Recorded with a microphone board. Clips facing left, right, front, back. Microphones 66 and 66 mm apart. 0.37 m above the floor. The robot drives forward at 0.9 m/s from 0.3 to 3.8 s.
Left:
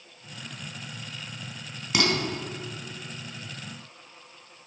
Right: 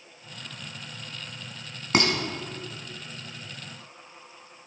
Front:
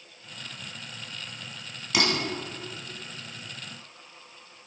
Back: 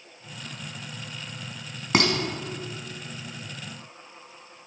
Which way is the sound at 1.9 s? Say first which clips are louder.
Right 2 dB, back 4 dB; 135° right.